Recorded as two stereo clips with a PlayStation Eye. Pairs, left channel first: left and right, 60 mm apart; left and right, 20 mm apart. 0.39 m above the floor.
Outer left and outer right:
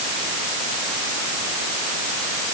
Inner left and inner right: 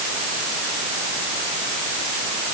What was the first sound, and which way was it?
Only background noise.